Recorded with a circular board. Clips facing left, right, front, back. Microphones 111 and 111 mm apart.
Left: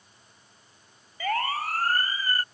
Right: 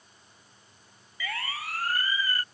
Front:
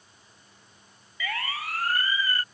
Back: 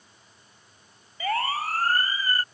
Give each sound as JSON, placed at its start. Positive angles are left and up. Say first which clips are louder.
{"t": 1.2, "sound": "a siren", "louder": "left 9 dB, back 7 dB", "azimuth_deg": 130}